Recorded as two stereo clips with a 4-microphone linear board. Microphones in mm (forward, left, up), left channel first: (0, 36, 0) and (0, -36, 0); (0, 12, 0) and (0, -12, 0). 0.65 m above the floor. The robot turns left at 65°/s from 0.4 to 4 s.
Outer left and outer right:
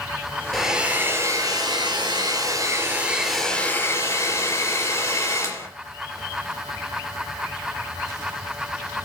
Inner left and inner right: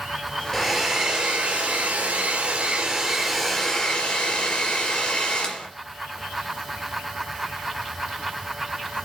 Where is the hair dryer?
5° left, 4 m; by 5.7 s 140° left, 4 m.